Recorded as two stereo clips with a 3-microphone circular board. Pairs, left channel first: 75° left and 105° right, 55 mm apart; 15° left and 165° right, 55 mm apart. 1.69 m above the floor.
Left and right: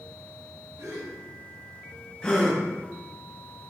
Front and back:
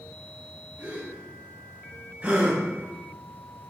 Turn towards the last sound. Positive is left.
turn(degrees=140)